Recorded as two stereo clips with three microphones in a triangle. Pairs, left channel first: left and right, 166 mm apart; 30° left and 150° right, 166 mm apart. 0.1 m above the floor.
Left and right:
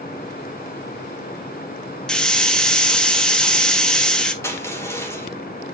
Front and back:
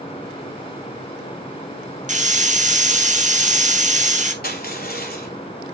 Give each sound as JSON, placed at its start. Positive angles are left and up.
{"t": 2.1, "sound": "a hiss", "azimuth_deg": 175, "distance_m": 1.5}
{"t": 4.4, "sound": "crushing", "azimuth_deg": 15, "distance_m": 3.0}